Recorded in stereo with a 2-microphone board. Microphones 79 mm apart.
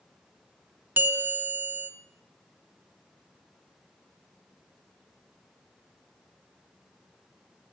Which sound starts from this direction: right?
A bell, at 1.0 s.